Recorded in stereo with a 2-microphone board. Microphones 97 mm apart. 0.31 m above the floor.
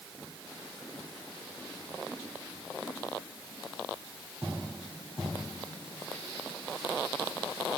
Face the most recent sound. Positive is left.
No sound to turn to.